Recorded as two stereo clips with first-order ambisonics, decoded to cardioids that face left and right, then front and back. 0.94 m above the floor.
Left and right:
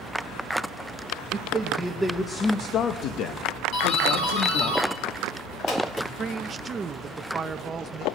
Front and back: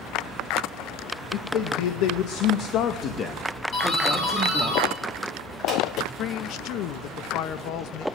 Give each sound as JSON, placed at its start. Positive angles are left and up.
{"t": 1.3, "sound": "a man speaking", "azimuth_deg": -25, "distance_m": 0.9}
{"t": 3.7, "sound": "a doorbell", "azimuth_deg": 50, "distance_m": 2.5}
{"t": 6.2, "sound": "a man speaking", "azimuth_deg": -25, "distance_m": 0.6}